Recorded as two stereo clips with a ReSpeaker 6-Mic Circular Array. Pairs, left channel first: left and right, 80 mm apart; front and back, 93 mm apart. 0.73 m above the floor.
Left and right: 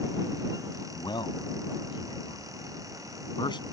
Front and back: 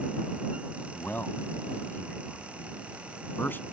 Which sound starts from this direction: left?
A man speaking, at 0.9 s.